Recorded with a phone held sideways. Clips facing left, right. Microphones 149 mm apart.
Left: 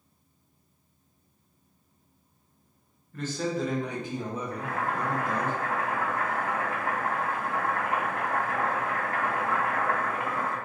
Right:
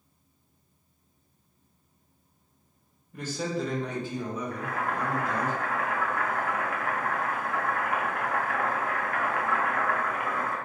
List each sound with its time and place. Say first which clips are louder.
3.1 s a man speaking: left 1 dB; 15° right (ahead or behind), 0.8 m; by 5.5 s 55° left (ahead or behind), 1.2 m
4.5 s boiling: even; 30° left (ahead or behind), 0.7 m